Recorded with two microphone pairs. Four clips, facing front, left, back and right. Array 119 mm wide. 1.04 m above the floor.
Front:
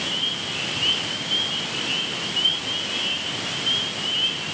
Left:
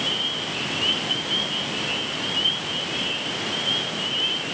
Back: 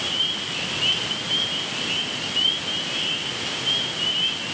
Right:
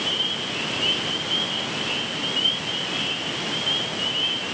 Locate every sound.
Only background noise.